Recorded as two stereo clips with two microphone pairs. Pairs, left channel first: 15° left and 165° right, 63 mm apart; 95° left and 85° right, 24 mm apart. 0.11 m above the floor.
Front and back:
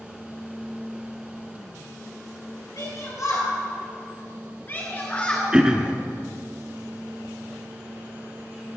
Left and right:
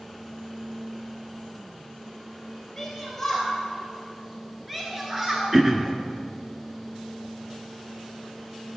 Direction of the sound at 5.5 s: 115° right.